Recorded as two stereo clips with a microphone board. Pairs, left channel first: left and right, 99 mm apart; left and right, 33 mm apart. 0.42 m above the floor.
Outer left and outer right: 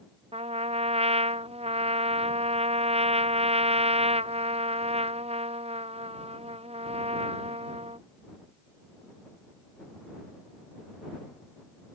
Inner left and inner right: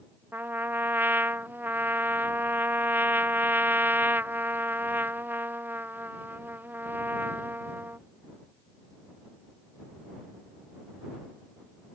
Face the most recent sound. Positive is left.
turn(degrees=-80)